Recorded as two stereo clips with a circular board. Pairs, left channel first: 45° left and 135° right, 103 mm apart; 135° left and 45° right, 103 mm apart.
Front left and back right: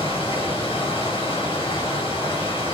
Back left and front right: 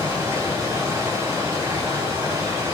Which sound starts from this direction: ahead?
Running water, at 0.0 s.